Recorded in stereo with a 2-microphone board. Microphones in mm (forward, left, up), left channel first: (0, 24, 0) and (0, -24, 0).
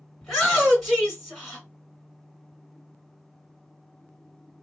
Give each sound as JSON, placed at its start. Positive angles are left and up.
{"t": 0.2, "sound": "a shout", "side_deg": 5, "distance_m": 1.9}